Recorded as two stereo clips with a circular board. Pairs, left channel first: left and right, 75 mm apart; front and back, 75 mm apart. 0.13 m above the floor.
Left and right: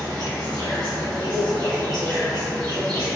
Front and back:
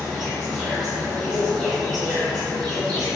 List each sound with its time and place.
0.0 s an insect: 90° right, 1.9 m